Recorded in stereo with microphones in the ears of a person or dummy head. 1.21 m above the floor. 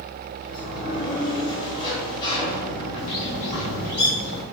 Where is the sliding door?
35° left (ahead or behind), 3 m.